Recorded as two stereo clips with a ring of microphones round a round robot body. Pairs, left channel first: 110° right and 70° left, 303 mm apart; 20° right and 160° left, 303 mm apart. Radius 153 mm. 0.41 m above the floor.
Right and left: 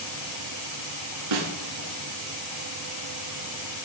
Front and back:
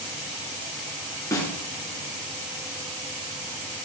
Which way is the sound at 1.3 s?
55° left.